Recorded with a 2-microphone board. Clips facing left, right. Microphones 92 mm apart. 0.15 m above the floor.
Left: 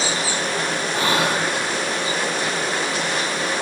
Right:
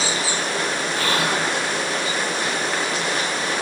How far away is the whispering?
About 5 m.